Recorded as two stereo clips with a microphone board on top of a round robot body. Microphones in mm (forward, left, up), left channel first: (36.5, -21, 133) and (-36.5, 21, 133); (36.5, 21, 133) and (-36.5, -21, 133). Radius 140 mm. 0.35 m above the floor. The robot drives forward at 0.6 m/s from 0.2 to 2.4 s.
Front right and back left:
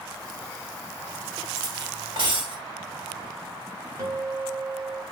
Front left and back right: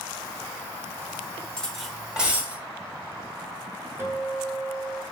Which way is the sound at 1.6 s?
110° left.